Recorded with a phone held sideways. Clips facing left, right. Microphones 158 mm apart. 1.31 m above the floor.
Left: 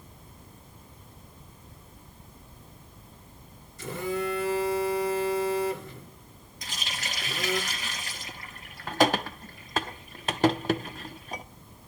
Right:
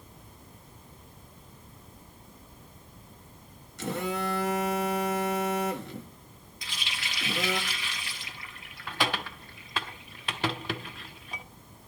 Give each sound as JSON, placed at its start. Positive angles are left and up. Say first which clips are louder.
{"t": 3.8, "sound": "a phone buzzing", "louder": "left 1 dB", "side_deg": -80, "distance_m": 1.4}
{"t": 6.6, "sound": "a running tap", "louder": "left 2 dB", "side_deg": 45, "distance_m": 0.7}